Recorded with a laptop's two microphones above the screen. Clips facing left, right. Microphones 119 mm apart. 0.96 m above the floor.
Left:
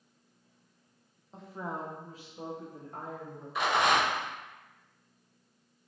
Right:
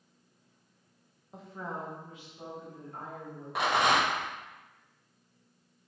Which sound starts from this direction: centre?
A woman speaking, at 1.3 s.